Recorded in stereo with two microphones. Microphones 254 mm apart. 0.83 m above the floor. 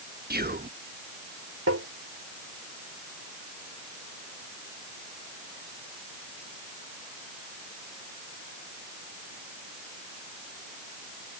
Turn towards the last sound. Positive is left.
turn(degrees=-75)  # may be behind; listen again after turning